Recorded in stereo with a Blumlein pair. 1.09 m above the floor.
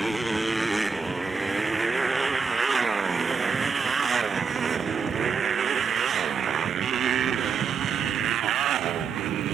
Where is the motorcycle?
5° right; by 9.6 s 35° right.